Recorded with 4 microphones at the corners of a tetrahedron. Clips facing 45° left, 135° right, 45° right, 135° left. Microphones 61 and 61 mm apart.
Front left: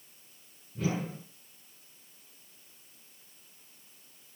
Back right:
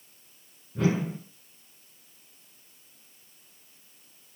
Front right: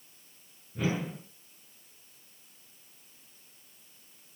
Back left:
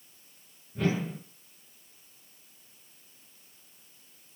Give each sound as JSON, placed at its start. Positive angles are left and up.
{"t": 0.8, "sound": "a whoosh", "azimuth_deg": -130, "distance_m": 7.5}